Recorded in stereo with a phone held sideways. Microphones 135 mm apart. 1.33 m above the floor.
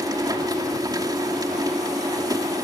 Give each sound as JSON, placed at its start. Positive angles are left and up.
{"t": 0.0, "sound": "a machine running", "side_deg": -30}